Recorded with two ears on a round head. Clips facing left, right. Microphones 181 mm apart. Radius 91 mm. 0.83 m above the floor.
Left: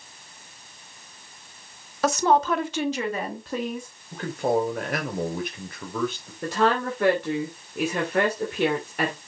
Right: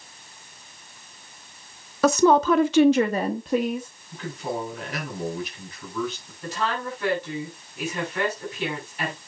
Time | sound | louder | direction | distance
2.0 | a woman speaking | right 4 dB | 70° right (ahead or behind) | 1.4 m
4.1 | a man speaking | left 7 dB | 45° left (ahead or behind) | 3 m
6.4 | a woman speaking | left 6 dB | 45° left (ahead or behind) | 3 m